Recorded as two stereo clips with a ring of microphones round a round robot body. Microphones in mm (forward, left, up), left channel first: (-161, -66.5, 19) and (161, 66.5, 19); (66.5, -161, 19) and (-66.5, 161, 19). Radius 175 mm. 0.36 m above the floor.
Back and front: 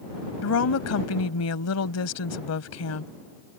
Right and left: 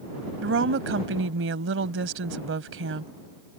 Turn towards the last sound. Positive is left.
turn(degrees=160)